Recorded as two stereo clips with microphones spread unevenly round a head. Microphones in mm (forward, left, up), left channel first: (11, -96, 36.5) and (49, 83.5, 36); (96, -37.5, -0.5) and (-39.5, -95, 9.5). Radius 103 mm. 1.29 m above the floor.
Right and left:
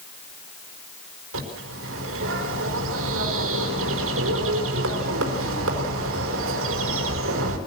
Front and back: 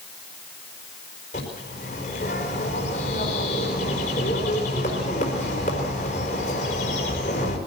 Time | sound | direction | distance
1.3 | a bird | 80° left | 4.5 m